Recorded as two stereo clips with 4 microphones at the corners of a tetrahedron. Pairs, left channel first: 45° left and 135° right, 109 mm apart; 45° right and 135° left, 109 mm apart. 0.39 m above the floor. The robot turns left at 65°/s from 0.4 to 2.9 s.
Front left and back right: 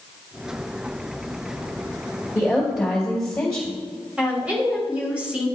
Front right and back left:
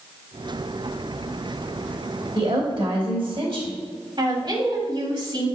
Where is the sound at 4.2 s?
150° left, 2.5 m.